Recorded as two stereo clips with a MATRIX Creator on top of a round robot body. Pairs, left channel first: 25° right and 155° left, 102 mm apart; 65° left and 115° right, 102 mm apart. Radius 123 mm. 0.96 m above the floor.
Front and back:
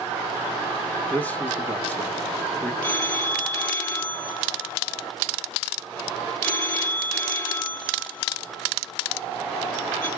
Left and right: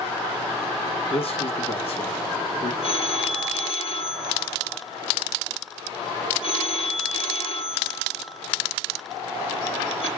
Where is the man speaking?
55° left, 1.5 m.